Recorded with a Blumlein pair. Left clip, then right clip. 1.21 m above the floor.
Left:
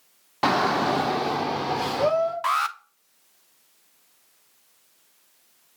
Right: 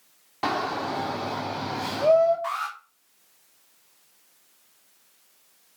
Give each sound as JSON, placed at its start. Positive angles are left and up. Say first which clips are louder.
{"t": 0.4, "sound": "a shout", "louder": "left 6 dB", "azimuth_deg": 20, "distance_m": 0.6}
{"t": 2.4, "sound": "an alarm", "louder": "left 6 dB", "azimuth_deg": 50, "distance_m": 0.8}